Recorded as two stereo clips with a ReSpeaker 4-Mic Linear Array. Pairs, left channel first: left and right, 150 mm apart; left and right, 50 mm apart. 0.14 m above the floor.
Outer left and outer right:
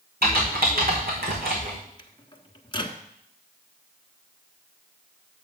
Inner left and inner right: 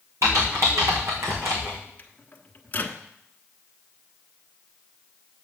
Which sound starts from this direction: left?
A microwave, at 2.0 s.